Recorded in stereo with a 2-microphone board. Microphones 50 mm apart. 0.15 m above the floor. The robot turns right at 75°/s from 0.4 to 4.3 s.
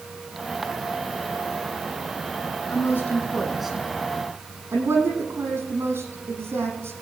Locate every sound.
2.7 s a woman speaking: 60° left (ahead or behind), 6.5 m; by 6.9 s 55° right (ahead or behind), 6.5 m